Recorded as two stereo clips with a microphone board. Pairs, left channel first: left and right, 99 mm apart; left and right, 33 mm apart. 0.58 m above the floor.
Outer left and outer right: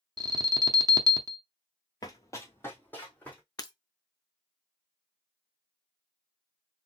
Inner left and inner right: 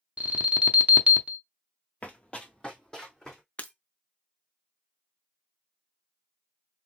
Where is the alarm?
40° right (ahead or behind), 0.6 m.